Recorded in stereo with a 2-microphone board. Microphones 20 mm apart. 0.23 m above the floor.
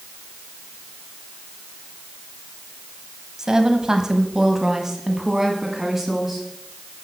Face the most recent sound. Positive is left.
turn(degrees=-10)  # may be behind; listen again after turning